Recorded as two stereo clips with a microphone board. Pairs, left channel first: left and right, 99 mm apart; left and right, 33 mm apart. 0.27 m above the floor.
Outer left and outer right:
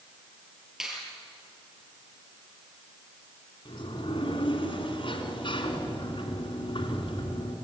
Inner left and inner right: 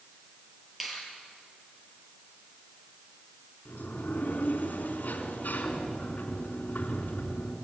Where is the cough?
I don't hear a cough.